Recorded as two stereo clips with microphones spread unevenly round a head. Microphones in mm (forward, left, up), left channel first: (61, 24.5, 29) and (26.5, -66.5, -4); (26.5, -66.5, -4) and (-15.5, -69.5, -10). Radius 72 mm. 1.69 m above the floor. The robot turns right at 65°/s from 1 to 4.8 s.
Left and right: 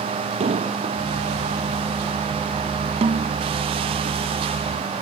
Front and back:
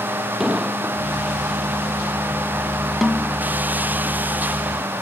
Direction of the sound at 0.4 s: 95° right.